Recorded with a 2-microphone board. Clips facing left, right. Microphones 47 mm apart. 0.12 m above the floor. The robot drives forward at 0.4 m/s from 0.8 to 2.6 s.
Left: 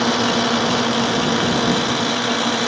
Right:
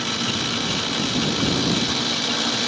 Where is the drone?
60° left (ahead or behind); by 2.7 s 30° left (ahead or behind).